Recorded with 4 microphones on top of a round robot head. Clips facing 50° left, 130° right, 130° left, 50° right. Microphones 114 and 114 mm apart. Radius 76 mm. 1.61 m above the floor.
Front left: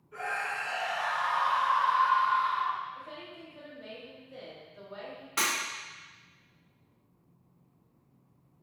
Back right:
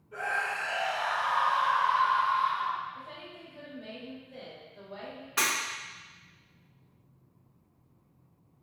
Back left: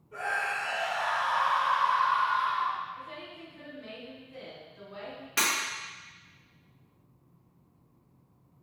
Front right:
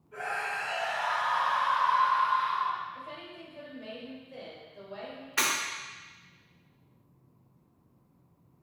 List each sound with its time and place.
0.1 s a scream: 170° right, 1.4 m
3.0 s a woman speaking: 45° right, 0.9 m
5.4 s breaking glass: 125° left, 1.3 m